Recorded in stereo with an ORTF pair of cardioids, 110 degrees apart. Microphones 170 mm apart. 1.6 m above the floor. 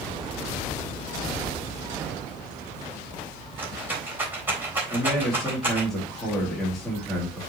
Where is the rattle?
15° right, 3.5 m.